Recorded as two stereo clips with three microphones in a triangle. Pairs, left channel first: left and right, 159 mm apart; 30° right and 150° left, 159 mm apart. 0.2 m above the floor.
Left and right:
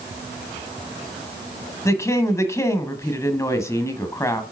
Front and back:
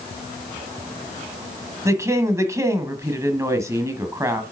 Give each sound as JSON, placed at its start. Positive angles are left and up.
{"t": 1.9, "sound": "a woman speaking", "azimuth_deg": 120, "distance_m": 1.2}